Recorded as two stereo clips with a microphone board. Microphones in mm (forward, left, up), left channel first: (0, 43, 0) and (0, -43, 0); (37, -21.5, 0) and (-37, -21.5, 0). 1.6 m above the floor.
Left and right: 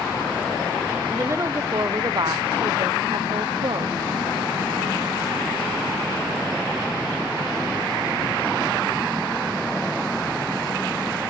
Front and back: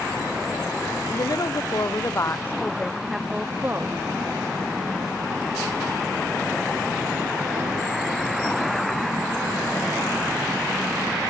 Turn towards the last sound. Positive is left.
turn(degrees=-125)